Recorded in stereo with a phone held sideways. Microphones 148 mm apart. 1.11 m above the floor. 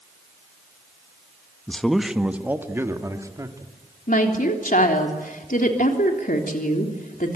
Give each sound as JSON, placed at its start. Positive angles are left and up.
{"t": 1.7, "sound": "a man speaking", "side_deg": 5, "distance_m": 1.2}
{"t": 4.1, "sound": "a woman speaking", "side_deg": 70, "distance_m": 3.5}